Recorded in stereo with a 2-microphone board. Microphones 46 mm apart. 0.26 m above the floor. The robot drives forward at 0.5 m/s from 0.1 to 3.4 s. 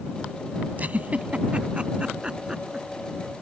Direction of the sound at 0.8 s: 40° right (ahead or behind).